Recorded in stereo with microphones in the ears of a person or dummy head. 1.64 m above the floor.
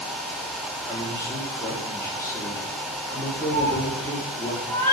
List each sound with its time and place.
0.9 s a man speaking: 15° left (ahead or behind), 1.0 m
3.5 s a cat meowing: 15° left (ahead or behind), 1.6 m